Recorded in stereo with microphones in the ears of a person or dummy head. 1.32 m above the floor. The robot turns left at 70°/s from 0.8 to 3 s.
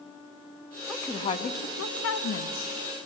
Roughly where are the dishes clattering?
I don't hear dishes clattering.